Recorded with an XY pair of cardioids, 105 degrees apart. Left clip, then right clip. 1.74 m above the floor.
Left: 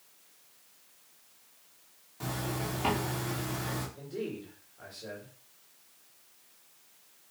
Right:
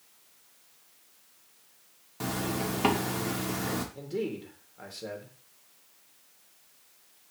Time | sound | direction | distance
2.2 | a zipper | 55° right | 2 m
4.0 | a man speaking | 60° right | 2.5 m